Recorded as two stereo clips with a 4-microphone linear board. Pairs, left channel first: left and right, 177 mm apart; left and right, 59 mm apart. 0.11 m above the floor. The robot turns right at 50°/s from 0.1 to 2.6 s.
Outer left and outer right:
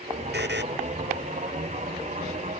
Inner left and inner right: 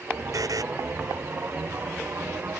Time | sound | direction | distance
0.3 | a buzzer | 70° right (ahead or behind) | ?